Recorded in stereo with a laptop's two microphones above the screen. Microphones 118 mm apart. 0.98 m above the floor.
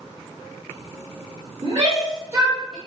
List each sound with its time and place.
1.6 s a shout: 40° right (ahead or behind), 1.6 m; by 2.8 s centre (ahead or behind), 1.0 m